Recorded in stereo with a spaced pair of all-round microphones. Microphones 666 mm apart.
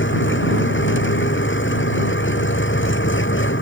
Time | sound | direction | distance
0.0 | an engine running | 15° left (ahead or behind) | ?